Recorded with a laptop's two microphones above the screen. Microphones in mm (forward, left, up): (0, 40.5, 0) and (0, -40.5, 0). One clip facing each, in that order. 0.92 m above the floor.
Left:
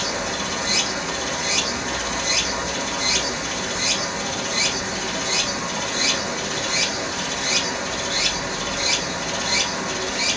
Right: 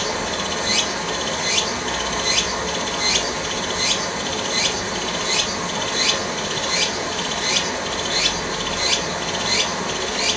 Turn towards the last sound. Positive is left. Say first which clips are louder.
# right 2 dB
turn(degrees=-70)  # may be behind; listen again after turning